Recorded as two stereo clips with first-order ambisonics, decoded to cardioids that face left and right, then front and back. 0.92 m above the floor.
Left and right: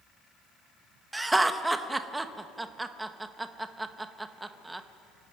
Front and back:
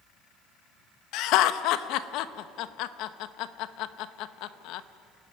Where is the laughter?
10° right, 0.9 m.